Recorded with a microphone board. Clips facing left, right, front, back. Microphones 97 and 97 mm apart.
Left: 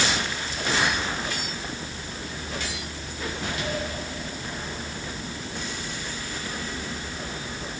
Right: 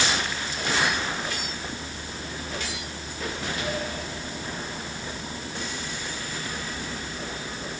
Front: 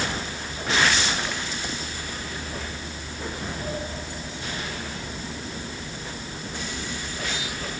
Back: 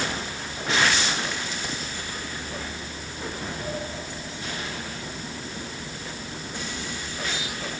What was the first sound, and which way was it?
Only background noise.